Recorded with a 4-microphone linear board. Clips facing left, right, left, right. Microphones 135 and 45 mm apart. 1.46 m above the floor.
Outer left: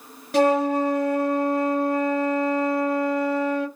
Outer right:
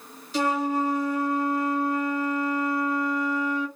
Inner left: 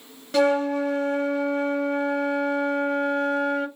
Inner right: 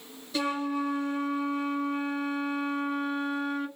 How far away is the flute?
About 0.8 m.